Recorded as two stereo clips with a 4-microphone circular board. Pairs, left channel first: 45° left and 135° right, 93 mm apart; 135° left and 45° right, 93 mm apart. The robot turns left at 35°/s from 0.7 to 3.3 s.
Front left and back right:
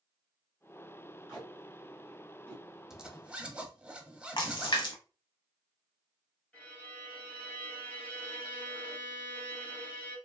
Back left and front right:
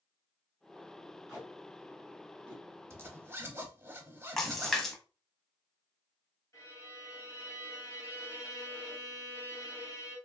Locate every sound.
1.3 s tape being pulled: 135° left, 1.6 m; by 2.8 s 85° left, 1.6 m
2.9 s a zipper: 55° right, 0.6 m; by 4.8 s 70° right, 0.6 m
4.4 s a splash: 50° left, 0.8 m
6.5 s a violin: 110° left, 1.7 m